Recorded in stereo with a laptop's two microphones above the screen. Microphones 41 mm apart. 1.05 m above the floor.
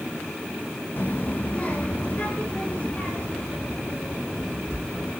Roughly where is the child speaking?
Left.